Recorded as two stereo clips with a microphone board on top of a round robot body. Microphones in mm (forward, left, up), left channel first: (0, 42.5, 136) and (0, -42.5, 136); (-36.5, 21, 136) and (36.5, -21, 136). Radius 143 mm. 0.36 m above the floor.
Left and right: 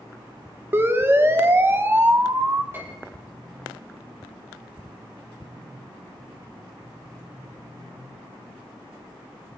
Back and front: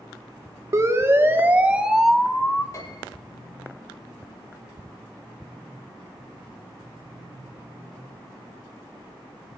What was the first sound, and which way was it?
A siren, 45° right.